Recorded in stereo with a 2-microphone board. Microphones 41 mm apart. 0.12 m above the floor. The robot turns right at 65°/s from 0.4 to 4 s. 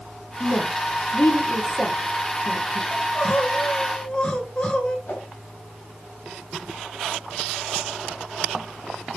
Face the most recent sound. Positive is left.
turn(degrees=55)  # may be behind; listen again after turning